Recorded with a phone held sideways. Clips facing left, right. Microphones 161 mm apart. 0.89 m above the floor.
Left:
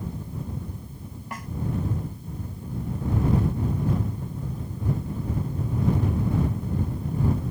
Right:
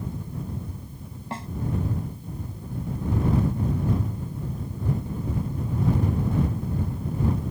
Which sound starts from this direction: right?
A snare drum, at 1.3 s.